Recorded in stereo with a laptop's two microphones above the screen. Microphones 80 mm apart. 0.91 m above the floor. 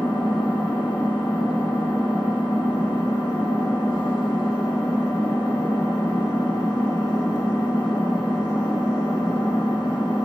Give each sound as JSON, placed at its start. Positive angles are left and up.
{"t": 0.0, "sound": "an engine running", "side_deg": 85, "distance_m": 1.0}